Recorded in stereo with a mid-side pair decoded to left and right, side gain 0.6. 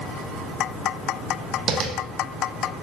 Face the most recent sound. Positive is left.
turn(degrees=-55)